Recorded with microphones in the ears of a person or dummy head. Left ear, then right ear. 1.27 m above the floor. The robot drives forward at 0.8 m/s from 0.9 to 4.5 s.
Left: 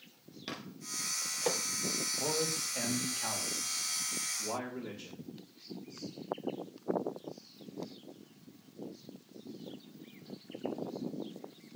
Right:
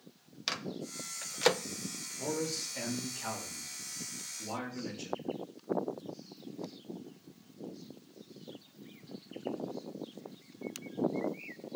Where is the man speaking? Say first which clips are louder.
Right 2 dB; 35° left (ahead or behind), 2.5 m; by 5.3 s 20° left (ahead or behind), 4 m.